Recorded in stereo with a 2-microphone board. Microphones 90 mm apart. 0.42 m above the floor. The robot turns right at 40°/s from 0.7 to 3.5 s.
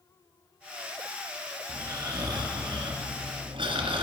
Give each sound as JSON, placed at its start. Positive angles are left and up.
{"t": 1.7, "sound": "snoring", "azimuth_deg": -155, "distance_m": 1.7}